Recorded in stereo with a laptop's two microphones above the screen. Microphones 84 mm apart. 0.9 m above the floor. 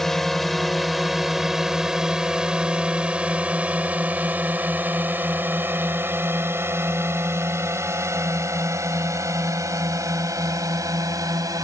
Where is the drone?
5° left (ahead or behind); by 11.6 s 40° right (ahead or behind).